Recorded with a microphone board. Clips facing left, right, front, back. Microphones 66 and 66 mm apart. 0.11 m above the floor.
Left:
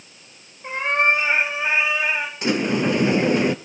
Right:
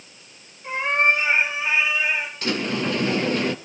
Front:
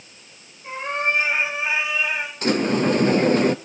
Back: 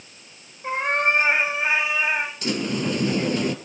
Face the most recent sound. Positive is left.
turn(degrees=25)